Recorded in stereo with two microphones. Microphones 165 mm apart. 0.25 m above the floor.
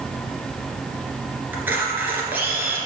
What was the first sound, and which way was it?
A camera shutter, 15° right (ahead or behind).